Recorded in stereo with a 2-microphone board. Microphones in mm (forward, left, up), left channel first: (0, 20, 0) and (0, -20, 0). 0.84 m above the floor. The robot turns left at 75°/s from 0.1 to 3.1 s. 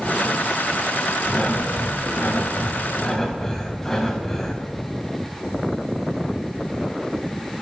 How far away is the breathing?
About 2 m.